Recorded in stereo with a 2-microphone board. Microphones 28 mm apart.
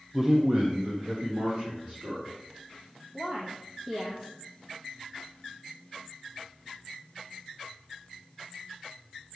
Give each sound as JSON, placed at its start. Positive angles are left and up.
{"t": 0.1, "sound": "a man speaking", "side_deg": -5, "distance_m": 0.5}
{"t": 3.1, "sound": "a woman speaking", "side_deg": -30, "distance_m": 1.3}